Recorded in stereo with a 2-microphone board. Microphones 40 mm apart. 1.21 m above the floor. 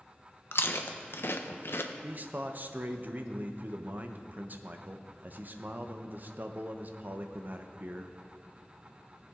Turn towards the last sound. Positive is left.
turn(degrees=-45)  # may be behind; listen again after turning